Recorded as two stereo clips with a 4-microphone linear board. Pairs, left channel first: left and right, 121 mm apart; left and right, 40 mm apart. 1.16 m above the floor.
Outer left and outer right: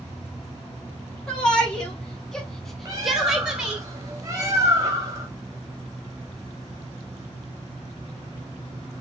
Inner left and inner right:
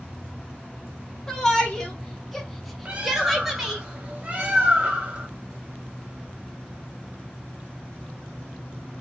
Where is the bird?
30° right (ahead or behind), 1.0 m.